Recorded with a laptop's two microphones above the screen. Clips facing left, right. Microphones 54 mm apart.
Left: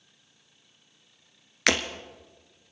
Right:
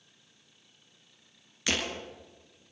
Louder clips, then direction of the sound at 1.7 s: Left 7 dB; 65° left (ahead or behind).